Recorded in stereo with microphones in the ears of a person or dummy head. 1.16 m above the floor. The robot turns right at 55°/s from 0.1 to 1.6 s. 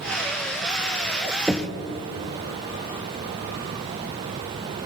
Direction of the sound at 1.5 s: Centre (ahead or behind).